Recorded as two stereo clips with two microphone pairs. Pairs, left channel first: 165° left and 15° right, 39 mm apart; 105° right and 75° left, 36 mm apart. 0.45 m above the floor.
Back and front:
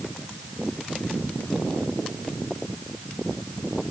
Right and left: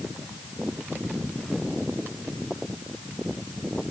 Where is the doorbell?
No doorbell in this recording.